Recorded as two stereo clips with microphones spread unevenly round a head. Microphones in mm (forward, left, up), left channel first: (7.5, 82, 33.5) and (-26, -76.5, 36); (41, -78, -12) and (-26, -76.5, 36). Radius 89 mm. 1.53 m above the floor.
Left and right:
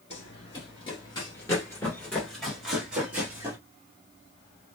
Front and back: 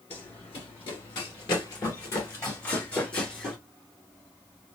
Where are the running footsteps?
40° left, 1.8 m; by 3.6 s 160° right, 1.7 m.